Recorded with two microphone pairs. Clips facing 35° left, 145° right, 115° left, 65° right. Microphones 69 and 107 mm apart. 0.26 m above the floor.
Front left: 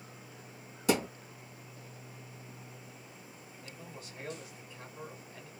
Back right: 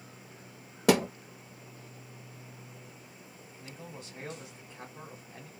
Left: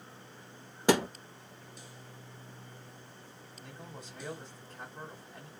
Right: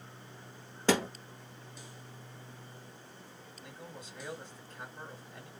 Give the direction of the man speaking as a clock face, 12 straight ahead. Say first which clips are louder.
Back right 3 dB, even; 7 o'clock.